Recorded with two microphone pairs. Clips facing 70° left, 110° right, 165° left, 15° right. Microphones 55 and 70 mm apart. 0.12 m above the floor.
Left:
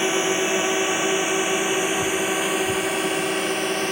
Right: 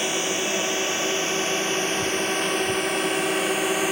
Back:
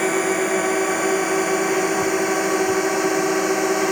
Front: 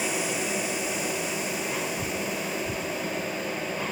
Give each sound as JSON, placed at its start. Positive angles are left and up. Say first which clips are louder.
{"t": 0.0, "sound": "a drone", "louder": "left 4 dB, back 10 dB", "azimuth_deg": 135}